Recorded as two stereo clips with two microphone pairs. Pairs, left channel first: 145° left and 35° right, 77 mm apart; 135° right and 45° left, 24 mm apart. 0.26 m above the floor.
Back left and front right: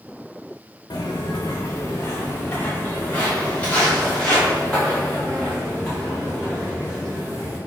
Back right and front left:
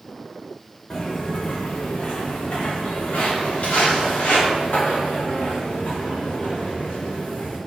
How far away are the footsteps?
About 1.1 m.